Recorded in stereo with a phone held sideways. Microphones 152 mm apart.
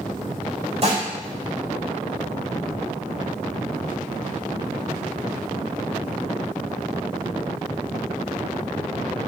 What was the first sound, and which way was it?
Dishes clattering, 45° right (ahead or behind).